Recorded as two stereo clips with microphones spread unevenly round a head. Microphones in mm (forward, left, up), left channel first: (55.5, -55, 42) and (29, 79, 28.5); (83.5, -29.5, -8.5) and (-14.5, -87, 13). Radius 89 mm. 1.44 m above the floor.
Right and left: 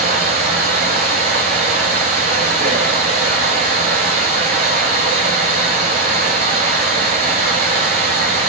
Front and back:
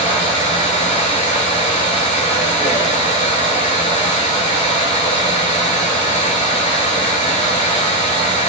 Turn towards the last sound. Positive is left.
turn(degrees=90)